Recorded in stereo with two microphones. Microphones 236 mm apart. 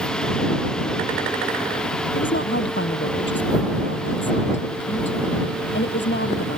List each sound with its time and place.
2.1 s a woman speaking: 55° left (ahead or behind); by 6.6 s 50° left (ahead or behind)